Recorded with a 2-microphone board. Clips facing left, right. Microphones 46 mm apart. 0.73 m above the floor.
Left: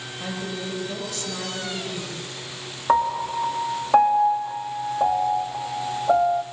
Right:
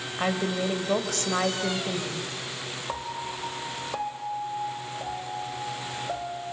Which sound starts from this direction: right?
A woman speaking, at 0.2 s.